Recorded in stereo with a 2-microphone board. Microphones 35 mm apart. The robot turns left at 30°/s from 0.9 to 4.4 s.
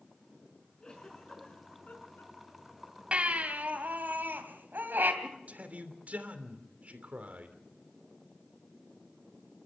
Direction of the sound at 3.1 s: 35° right.